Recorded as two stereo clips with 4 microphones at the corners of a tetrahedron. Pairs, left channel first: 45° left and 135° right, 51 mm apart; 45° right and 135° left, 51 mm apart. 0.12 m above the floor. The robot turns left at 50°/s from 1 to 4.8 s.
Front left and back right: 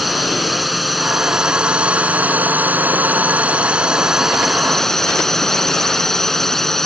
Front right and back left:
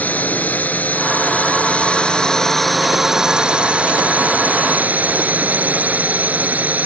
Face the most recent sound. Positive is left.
turn(degrees=125)